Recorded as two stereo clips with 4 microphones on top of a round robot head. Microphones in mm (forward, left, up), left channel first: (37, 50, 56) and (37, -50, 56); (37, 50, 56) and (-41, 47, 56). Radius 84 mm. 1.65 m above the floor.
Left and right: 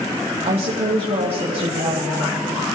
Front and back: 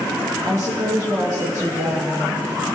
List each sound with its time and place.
0.5 s a woman speaking: 120° right, 1.6 m